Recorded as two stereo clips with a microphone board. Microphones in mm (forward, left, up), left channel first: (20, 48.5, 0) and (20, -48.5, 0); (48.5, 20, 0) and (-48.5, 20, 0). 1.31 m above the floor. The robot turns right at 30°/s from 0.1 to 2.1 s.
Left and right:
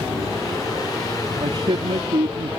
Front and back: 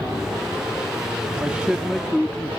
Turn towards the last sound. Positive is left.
turn(degrees=-85)